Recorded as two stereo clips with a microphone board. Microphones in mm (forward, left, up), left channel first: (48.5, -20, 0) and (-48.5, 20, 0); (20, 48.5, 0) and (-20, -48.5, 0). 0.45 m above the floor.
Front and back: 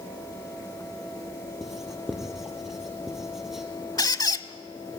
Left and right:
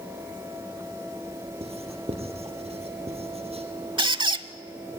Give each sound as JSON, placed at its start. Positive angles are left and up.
{"t": 1.6, "sound": "writing", "azimuth_deg": -115, "distance_m": 2.5}
{"t": 4.0, "sound": "a squeak", "azimuth_deg": -75, "distance_m": 0.7}